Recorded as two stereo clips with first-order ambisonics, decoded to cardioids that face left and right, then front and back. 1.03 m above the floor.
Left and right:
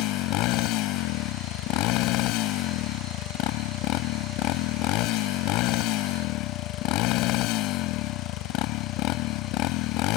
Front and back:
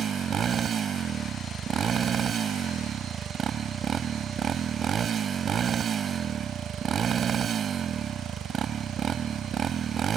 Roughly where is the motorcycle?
Behind left.